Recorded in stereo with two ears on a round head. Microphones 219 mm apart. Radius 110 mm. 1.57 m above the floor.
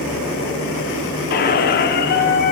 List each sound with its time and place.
1.3 s a squeak: 40° left (ahead or behind), 0.6 m